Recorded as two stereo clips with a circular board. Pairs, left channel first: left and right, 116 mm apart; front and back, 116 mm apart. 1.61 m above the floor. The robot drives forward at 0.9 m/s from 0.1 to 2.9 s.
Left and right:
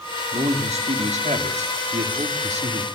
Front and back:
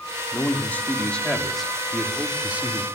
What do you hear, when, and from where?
0.3 s a man speaking: 70° right, 4 m; by 2.9 s 105° right, 4 m